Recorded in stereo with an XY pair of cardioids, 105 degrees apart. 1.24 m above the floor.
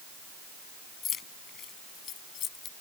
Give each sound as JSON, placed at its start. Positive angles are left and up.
{"t": 1.0, "sound": "keys jangling", "azimuth_deg": 55}